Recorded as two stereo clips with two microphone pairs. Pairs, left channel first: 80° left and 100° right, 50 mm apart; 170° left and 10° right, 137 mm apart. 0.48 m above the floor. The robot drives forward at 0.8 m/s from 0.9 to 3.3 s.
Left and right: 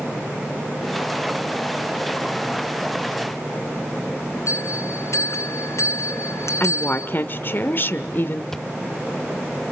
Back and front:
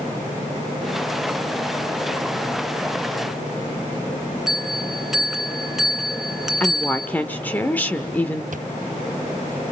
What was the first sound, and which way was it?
A bell, 80° left.